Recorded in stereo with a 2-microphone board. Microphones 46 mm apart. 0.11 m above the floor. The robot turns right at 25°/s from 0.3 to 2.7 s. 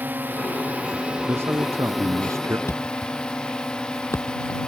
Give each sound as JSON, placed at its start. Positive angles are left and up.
{"t": 0.0, "sound": "a drone", "azimuth_deg": -40}
{"t": 1.3, "sound": "a man speaking", "azimuth_deg": -120}
{"t": 2.7, "sound": "a thud", "side_deg": 70}